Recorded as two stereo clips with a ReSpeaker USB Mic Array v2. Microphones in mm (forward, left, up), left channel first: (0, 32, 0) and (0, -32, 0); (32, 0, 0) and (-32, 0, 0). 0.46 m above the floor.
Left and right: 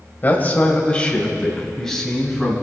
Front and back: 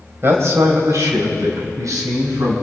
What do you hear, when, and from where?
0.2 s a man speaking: 140° left, 2.5 m; by 2.5 s 175° left, 4 m